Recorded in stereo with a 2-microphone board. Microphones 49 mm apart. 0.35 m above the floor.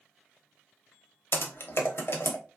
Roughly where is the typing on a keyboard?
Left.